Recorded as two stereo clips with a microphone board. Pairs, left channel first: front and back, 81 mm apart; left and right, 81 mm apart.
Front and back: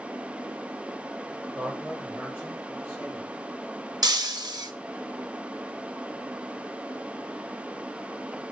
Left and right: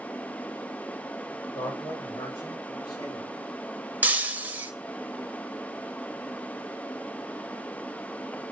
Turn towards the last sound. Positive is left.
turn(degrees=-155)